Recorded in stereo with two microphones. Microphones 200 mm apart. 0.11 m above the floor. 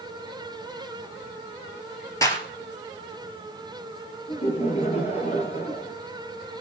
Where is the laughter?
35° left (ahead or behind), 2 m.